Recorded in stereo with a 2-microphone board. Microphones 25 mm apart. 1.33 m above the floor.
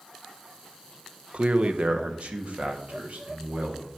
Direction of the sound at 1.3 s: 55° right (ahead or behind).